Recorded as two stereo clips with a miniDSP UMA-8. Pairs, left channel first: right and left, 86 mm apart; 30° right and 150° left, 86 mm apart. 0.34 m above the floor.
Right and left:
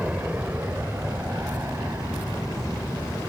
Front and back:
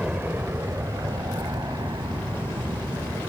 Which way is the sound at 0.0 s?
115° left.